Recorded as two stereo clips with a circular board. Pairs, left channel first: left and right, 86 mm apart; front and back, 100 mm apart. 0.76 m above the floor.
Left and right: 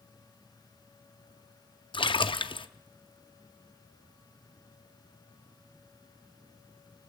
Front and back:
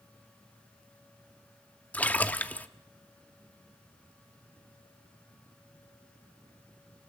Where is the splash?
75° left, 0.7 m.